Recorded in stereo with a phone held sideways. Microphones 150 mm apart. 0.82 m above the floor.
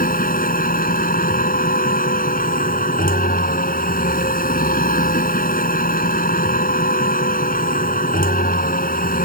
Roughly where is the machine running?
Left.